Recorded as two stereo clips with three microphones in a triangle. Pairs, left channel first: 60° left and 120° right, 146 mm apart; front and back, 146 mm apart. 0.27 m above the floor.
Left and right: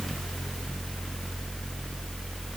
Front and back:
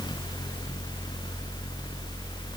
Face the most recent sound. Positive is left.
No sound to turn to.